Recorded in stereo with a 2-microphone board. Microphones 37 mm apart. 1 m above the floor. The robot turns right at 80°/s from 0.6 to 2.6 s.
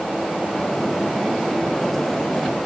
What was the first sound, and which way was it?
Only background noise.